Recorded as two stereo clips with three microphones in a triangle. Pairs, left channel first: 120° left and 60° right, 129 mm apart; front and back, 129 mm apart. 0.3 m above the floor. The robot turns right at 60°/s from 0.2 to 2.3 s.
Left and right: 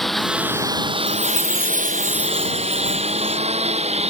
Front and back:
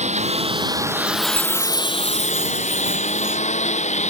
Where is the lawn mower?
150° right; by 4.1 s 25° right.